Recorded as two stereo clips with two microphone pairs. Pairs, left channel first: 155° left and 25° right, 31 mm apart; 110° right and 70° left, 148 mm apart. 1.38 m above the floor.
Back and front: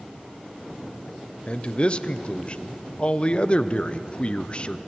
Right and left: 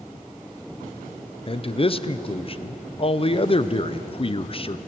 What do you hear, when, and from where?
1.5 s a man speaking: 160° right, 0.7 m